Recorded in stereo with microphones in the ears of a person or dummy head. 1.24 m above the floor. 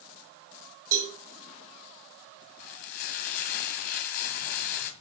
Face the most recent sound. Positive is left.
turn(degrees=50)  # may be behind; listen again after turning